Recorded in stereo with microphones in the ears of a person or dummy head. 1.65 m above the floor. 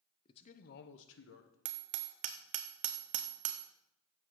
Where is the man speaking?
35° left (ahead or behind), 0.9 m; by 1.6 s 80° left, 1.5 m.